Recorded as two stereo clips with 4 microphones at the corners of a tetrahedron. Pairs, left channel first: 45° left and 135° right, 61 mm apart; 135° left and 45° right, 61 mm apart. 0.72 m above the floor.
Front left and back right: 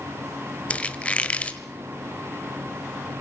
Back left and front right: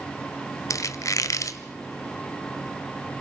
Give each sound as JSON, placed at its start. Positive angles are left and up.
{"t": 0.7, "sound": "a squeak", "azimuth_deg": 115, "distance_m": 1.1}